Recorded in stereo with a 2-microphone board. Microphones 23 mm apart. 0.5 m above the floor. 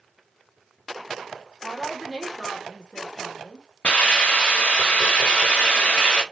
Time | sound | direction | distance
1.6 | a woman speaking | 40° left (ahead or behind) | 1.3 m
3.8 | a hiss | 75° left (ahead or behind) | 1.1 m